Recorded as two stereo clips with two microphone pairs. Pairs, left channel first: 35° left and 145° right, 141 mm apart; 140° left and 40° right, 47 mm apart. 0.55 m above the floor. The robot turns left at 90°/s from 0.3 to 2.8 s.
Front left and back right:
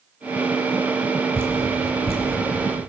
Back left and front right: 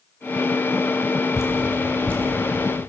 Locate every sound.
1.4 s dripping: 145° left, 3.5 m; by 2.8 s 15° left, 3.5 m